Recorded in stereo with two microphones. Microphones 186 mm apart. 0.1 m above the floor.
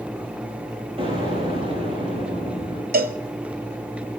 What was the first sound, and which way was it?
An explosion, 30° right (ahead or behind).